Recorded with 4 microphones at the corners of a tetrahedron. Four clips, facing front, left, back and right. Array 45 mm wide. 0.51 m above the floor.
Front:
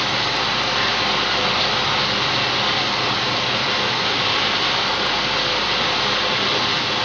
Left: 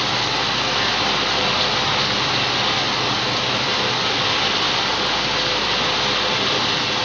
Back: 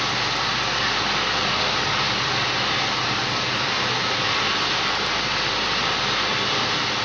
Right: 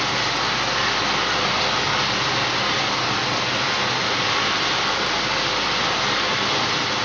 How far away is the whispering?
No whispering in this recording.